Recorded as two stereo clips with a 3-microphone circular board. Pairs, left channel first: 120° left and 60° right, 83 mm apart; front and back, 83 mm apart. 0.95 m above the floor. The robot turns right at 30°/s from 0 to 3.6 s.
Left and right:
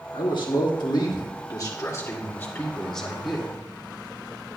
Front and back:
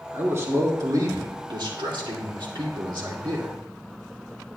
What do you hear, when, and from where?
0.1 s a man speaking: 120° left, 2 m; by 3.5 s 140° right, 2 m